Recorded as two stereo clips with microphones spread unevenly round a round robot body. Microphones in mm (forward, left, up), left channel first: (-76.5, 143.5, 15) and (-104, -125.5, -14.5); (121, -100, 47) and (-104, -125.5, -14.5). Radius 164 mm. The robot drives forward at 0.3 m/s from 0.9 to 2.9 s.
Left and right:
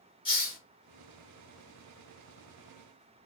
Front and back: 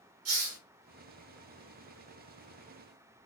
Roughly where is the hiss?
Behind.